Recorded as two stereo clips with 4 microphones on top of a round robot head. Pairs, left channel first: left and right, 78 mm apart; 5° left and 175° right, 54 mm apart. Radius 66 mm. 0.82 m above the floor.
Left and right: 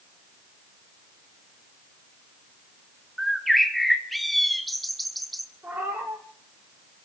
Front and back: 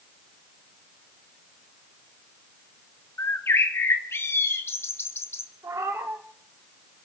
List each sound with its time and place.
3.2 s a bird: straight ahead, 1.3 m
5.6 s a cat meowing: 160° right, 5 m